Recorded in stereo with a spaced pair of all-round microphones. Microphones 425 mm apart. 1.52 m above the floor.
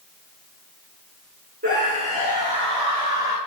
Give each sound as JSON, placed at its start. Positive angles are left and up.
{"t": 1.6, "sound": "a scream", "side_deg": -20, "distance_m": 6.0}